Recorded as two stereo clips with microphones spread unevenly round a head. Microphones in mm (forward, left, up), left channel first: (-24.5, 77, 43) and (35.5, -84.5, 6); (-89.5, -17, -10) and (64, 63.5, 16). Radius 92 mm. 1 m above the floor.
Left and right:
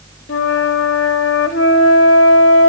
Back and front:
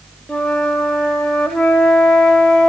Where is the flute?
120° left, 0.9 m.